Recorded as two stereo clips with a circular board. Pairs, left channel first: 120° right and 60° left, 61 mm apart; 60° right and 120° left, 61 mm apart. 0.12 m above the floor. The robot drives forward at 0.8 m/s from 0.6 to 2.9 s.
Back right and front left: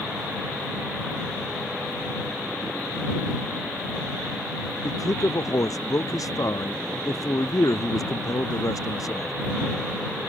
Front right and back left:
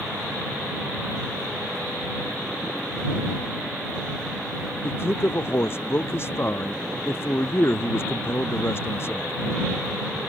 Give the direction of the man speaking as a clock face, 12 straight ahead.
4 o'clock.